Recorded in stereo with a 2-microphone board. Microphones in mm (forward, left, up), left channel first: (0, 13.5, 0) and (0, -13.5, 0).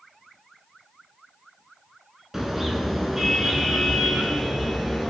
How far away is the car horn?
About 6 m.